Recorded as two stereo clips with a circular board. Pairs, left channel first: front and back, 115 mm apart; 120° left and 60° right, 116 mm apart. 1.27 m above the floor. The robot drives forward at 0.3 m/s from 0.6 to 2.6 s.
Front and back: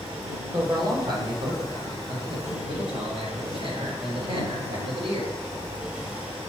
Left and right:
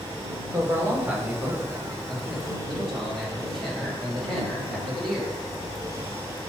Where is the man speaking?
125° right, 0.8 m; by 5.3 s 150° right, 1.3 m.